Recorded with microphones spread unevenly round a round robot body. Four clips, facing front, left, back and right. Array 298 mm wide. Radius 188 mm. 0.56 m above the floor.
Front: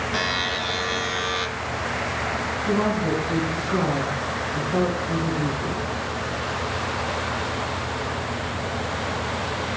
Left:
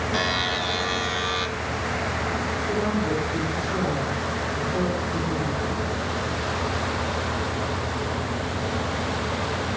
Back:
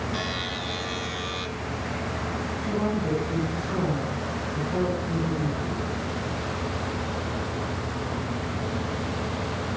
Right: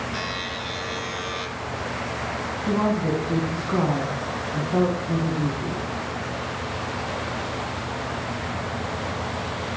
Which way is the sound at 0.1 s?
40° left.